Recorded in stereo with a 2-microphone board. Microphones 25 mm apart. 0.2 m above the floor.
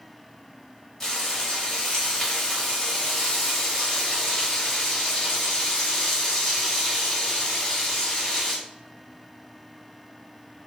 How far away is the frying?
About 1.2 m.